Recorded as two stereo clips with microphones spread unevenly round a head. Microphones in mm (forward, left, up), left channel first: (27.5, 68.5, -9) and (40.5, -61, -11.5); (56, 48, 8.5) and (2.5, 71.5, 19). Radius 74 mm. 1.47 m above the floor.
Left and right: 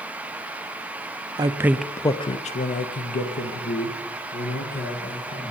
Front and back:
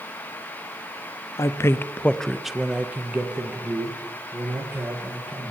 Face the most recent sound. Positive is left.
turn(degrees=100)